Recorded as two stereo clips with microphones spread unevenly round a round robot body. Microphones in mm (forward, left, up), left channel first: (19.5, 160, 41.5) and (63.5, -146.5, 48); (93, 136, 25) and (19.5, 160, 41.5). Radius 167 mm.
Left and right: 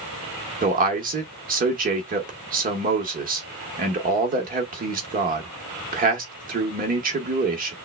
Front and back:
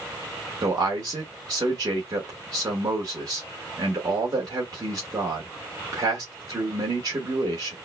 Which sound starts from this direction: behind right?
A man speaking, at 0.6 s.